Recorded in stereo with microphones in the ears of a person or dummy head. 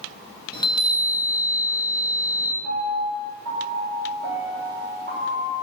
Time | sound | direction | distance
0.5 | a chime | 20° left (ahead or behind) | 1.7 m
2.6 | a piano | 45° right (ahead or behind) | 4 m